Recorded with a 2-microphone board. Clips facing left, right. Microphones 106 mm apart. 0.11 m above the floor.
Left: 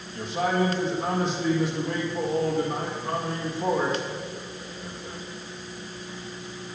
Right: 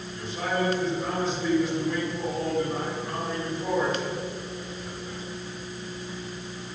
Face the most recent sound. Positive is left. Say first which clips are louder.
# left 4 dB
turn(degrees=65)  # may be behind; listen again after turning